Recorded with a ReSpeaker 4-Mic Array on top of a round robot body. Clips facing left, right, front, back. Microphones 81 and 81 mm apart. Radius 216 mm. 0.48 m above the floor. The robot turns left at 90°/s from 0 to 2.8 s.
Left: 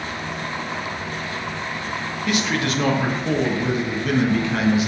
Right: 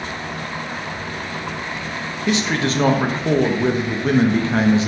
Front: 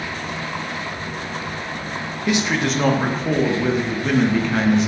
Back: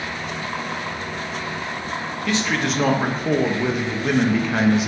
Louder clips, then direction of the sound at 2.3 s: Right 3 dB, front 2 dB; 50° right.